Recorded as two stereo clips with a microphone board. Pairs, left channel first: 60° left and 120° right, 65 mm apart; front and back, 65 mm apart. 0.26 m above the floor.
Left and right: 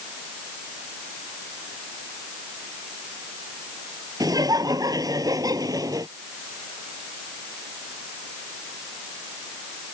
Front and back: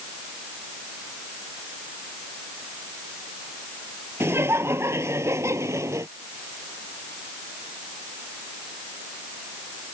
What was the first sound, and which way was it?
Laughter, 130° right.